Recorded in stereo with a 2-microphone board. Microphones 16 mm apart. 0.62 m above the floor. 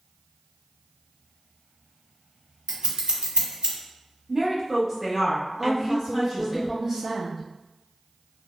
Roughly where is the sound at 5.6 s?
Centre.